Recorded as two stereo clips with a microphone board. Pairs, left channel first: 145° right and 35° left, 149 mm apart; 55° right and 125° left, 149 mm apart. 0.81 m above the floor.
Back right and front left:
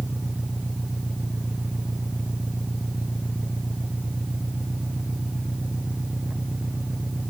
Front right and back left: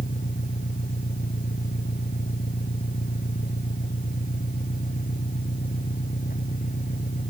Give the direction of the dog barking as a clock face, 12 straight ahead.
I don't hear a dog barking.